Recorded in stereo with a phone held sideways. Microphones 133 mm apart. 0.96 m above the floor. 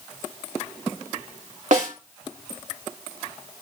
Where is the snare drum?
70° right (ahead or behind), 2.5 m.